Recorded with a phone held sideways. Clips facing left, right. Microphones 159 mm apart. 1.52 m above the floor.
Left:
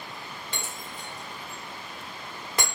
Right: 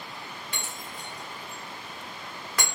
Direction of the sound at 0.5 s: 25° left (ahead or behind).